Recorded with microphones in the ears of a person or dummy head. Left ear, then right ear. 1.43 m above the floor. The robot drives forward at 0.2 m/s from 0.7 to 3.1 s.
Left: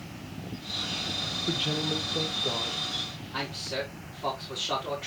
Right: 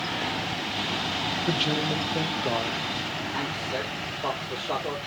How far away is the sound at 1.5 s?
About 1.2 m.